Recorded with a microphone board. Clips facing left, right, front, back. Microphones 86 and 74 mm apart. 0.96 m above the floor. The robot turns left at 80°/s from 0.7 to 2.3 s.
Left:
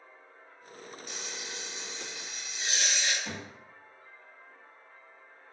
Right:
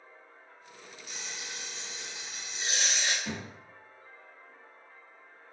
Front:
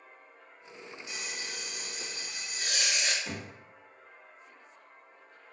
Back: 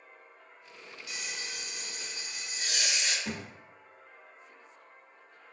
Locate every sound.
1.1 s frying: 65° left, 0.7 m; by 3.1 s 30° right, 0.7 m
3.2 s a thud: 170° right, 1.4 m